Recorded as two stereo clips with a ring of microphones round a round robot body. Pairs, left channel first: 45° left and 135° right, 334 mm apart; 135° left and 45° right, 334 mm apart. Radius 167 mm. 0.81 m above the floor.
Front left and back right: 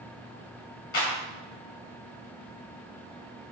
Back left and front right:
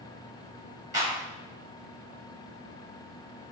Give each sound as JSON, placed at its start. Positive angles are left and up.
{"t": 0.9, "sound": "a clap", "azimuth_deg": 35, "distance_m": 3.0}